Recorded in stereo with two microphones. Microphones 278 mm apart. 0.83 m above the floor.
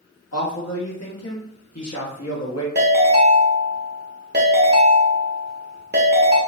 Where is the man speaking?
65° left (ahead or behind), 1.1 m.